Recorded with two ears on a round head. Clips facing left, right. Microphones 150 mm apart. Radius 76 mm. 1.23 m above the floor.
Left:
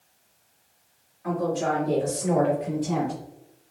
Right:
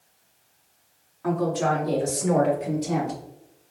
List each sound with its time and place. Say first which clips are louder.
1.2 s a woman speaking: right 2 dB; 75° right (ahead or behind), 2 m; by 3.2 s 50° right (ahead or behind), 3.5 m